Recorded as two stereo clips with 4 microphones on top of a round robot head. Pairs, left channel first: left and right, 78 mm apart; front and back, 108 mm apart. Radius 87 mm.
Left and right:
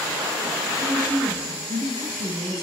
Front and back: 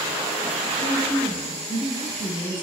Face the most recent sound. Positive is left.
turn(degrees=-50)